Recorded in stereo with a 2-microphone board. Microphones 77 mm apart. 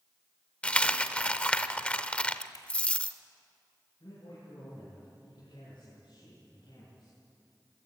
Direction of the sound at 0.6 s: 15° left (ahead or behind).